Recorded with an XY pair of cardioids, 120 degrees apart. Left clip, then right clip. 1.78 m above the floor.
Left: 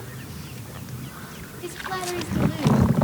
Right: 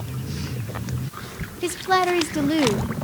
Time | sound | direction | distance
1.6 | a woman speaking | 55° right | 0.9 m